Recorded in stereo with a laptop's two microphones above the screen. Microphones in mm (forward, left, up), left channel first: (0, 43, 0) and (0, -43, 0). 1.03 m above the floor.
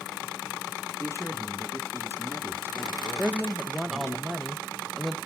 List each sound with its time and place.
1.0 s a man speaking: 30° left (ahead or behind), 2 m
3.2 s a woman speaking: 5° right (ahead or behind), 0.9 m